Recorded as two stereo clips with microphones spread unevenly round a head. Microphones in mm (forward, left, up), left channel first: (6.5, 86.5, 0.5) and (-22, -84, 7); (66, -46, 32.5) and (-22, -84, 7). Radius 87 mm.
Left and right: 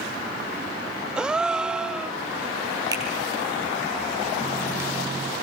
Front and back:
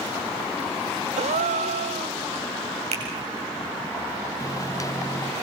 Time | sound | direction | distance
1.2 | a gasp | 175° left | 0.7 m
2.9 | a finger snap | 170° right | 8 m
4.4 | a microwave | 25° right | 0.8 m